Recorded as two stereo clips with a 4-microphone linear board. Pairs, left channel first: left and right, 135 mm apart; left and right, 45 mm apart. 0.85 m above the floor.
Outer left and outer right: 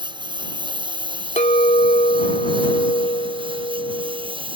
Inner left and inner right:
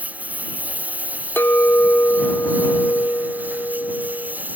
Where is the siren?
No siren in this recording.